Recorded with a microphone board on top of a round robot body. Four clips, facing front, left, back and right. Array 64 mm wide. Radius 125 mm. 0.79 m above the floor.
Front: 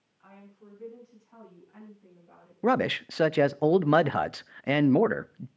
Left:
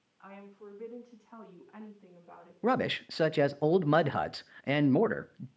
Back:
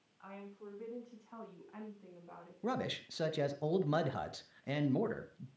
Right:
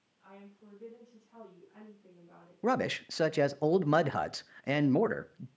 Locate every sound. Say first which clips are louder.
0.2 s a woman speaking: left 5 dB, back 3 dB; 115° left, 8 m; by 2.5 s 120° left, 6.5 m
2.6 s a man speaking: left 1 dB, front 13 dB; 5° left, 0.6 m